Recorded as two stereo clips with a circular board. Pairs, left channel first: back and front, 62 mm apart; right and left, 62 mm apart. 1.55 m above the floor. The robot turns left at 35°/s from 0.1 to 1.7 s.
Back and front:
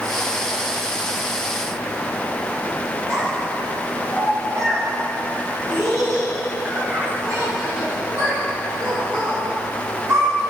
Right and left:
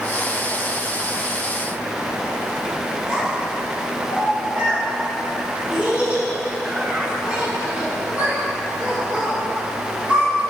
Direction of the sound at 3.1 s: 25° left.